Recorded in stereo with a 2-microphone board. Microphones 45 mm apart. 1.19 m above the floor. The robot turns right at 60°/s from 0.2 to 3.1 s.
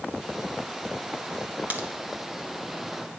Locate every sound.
1.7 s a crack: 40° right (ahead or behind), 1.0 m; by 1.9 s 50° right (ahead or behind), 1.0 m